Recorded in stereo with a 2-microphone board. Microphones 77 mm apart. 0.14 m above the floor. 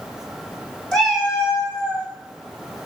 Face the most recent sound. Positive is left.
turn(degrees=-25)  # may be behind; listen again after turning